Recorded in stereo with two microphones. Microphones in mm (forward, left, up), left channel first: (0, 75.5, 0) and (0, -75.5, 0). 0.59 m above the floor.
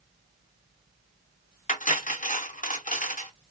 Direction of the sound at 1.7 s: 60° left (ahead or behind).